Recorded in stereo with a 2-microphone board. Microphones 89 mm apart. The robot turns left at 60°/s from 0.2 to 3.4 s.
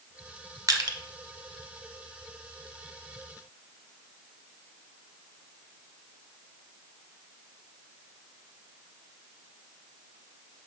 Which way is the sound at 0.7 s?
45° right (ahead or behind).